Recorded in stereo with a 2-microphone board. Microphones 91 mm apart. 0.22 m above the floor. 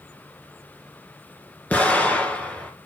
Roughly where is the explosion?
Centre.